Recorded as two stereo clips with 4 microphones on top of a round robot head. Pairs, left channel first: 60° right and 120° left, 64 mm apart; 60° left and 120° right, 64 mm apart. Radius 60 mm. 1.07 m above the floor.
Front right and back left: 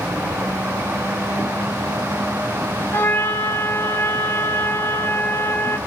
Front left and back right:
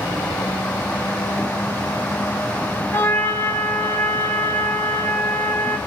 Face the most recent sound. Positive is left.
turn(degrees=0)